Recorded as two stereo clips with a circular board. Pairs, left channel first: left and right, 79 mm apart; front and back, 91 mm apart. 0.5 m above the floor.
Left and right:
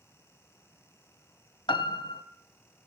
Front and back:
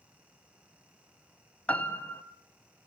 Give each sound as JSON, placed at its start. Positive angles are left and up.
{"t": 1.7, "sound": "a piano", "azimuth_deg": 75, "distance_m": 1.1}